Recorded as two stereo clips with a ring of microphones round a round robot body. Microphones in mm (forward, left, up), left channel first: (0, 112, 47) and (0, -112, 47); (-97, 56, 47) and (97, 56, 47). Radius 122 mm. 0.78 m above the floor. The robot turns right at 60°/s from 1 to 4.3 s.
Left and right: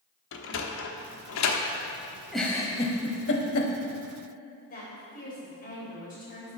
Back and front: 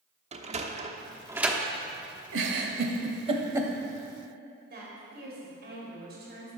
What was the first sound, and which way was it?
A sliding door, 55° left.